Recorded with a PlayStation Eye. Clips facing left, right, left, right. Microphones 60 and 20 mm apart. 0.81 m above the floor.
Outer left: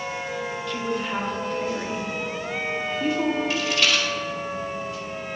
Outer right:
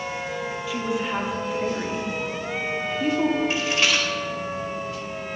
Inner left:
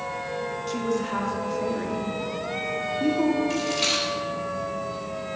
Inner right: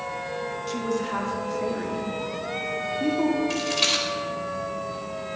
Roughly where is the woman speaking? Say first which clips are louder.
Outer right 2 dB, inner left 1 dB; centre.